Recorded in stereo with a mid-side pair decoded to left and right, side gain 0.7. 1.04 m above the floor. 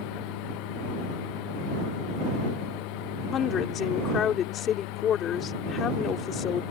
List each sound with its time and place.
0.0 s a machine running: 70° left
3.3 s a woman speaking: 45° left